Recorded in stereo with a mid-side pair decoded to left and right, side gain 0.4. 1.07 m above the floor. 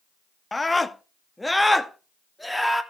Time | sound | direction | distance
0.5 | a scream | 25° left | 1.1 m